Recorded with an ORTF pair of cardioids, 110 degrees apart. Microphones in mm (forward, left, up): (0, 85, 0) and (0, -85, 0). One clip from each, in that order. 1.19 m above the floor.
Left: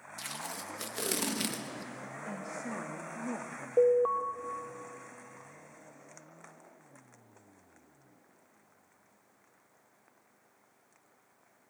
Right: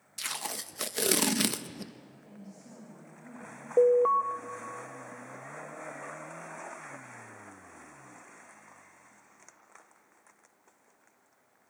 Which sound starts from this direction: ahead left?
A woman speaking, at 2.3 s.